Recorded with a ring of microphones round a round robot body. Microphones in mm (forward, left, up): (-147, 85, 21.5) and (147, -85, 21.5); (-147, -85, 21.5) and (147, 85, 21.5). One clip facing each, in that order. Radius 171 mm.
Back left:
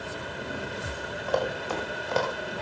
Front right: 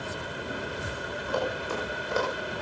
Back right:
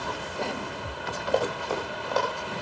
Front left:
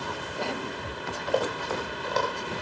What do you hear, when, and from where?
1.3 s running footsteps: 125° left, 8.5 m; by 2.5 s 120° left, 7.5 m